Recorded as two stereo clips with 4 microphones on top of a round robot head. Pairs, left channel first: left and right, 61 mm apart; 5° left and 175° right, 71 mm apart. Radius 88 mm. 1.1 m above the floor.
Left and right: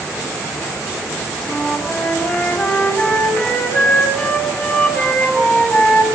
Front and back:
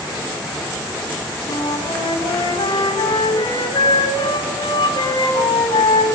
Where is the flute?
20° left, 9 m.